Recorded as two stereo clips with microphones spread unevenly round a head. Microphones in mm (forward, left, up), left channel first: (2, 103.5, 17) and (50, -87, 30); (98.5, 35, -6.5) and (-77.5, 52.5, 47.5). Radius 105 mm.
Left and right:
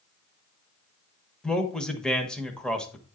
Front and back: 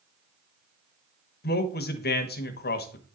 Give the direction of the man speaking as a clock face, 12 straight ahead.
11 o'clock.